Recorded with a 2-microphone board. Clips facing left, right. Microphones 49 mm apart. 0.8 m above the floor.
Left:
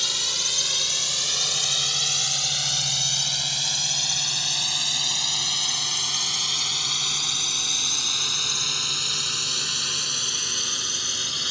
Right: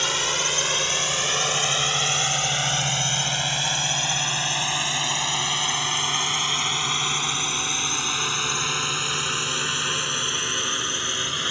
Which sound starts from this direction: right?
A drone, at 0.0 s.